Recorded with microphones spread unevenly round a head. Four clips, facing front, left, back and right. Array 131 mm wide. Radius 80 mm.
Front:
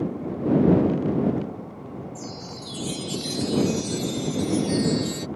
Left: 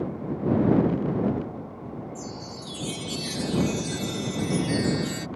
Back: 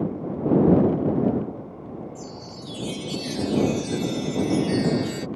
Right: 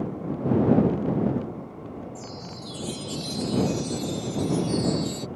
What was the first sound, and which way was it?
A chime, 105° left.